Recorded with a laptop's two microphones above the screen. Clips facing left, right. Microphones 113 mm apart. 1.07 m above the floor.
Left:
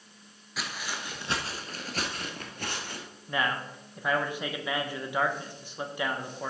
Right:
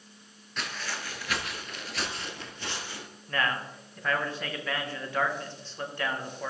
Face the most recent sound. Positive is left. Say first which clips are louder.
# even
turn(degrees=15)  # may be behind; listen again after turning